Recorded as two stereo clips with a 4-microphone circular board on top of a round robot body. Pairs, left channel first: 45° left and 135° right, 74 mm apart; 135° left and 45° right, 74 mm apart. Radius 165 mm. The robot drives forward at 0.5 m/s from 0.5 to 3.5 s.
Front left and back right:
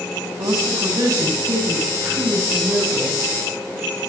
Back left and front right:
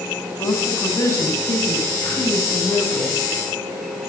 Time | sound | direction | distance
0.4 | a woman speaking | 175° right | 8.5 m